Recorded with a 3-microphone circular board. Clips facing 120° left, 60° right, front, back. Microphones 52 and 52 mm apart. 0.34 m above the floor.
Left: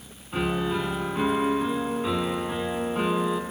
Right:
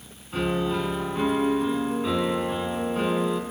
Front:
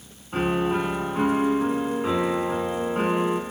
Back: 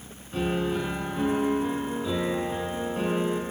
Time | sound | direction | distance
0.3 | a piano | 40° left | 1.8 m